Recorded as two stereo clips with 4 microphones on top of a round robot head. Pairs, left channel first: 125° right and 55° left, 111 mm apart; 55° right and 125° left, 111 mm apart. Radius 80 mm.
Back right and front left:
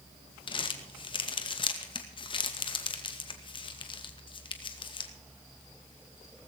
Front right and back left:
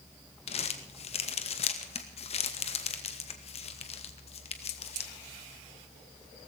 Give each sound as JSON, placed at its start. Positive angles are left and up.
{"t": 0.5, "sound": "crumpling", "azimuth_deg": -85, "distance_m": 2.0}